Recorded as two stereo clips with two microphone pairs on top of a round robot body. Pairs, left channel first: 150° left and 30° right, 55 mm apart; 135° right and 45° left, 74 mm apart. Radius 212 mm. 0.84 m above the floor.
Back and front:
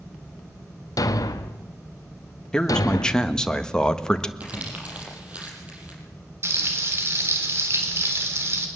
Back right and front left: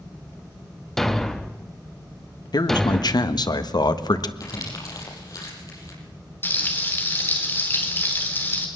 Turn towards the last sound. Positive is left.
turn(degrees=-70)